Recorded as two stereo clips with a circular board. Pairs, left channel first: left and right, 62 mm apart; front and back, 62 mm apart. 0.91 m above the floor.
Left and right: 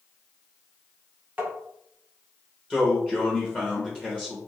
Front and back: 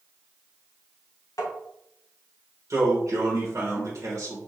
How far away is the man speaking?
About 1.2 m.